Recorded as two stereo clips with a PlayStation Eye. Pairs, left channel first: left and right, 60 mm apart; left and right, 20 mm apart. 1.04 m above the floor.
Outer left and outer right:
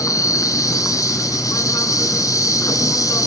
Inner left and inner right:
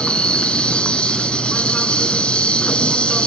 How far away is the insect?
About 2.5 m.